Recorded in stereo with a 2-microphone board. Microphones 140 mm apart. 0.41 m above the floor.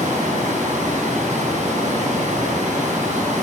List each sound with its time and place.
0.0 s running water: 65° right (ahead or behind), 2.5 m